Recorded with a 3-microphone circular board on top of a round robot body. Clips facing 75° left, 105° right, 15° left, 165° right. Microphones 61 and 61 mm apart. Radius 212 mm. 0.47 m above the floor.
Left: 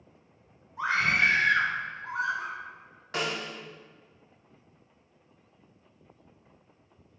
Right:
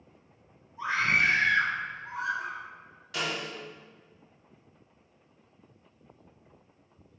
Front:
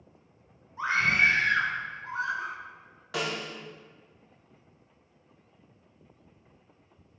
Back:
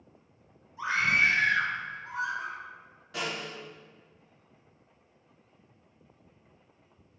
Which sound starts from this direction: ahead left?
A scream, at 0.8 s.